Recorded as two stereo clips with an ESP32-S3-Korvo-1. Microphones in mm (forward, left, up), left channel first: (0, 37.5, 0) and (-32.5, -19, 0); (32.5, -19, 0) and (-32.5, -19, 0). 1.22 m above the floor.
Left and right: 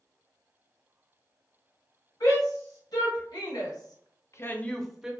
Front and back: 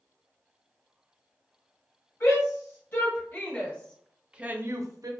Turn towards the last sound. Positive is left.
turn(degrees=160)